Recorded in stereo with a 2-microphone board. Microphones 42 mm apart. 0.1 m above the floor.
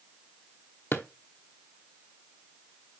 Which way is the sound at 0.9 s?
65° left (ahead or behind).